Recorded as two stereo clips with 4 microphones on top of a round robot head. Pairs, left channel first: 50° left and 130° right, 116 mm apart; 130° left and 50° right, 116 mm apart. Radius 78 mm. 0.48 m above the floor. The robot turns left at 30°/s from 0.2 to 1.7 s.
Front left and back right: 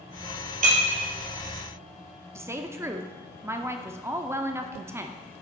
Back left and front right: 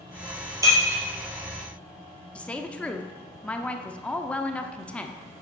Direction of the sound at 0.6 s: 115° right.